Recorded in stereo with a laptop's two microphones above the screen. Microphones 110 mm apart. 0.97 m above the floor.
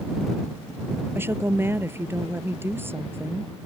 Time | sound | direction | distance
1.1 | a woman speaking | 20° right (ahead or behind) | ?